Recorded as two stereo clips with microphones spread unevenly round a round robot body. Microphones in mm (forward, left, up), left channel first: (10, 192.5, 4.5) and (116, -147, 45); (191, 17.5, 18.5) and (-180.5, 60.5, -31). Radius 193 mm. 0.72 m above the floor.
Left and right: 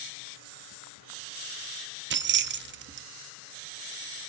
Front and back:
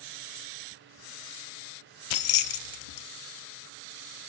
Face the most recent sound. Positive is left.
turn(degrees=-10)